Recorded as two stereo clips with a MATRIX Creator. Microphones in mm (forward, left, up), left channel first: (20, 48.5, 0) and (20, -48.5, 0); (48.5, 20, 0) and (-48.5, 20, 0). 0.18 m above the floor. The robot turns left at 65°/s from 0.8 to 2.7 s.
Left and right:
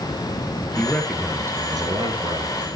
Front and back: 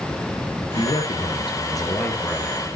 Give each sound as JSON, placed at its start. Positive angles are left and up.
{"t": 0.8, "sound": "a man speaking", "azimuth_deg": 15, "distance_m": 3.5}